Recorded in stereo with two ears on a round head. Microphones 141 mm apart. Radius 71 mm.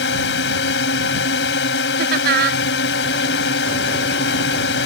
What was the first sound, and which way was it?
A drone, 85° left.